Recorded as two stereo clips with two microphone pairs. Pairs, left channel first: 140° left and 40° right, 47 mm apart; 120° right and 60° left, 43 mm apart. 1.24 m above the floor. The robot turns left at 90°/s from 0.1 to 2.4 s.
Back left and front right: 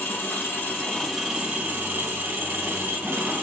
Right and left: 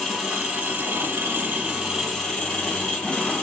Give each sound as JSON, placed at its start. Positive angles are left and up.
{"t": 0.0, "sound": "an engine running", "azimuth_deg": 140, "distance_m": 1.8}